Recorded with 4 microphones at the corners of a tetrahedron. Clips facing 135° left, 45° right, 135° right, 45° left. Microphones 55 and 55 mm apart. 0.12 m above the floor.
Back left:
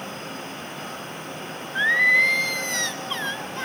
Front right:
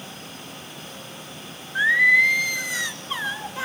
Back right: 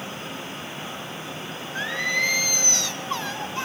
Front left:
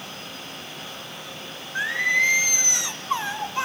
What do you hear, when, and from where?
1.8 s singing: 30° left, 1.6 m